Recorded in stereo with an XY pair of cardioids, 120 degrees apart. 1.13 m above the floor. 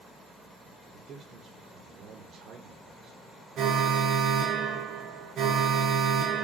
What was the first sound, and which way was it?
A man speaking, 70° right.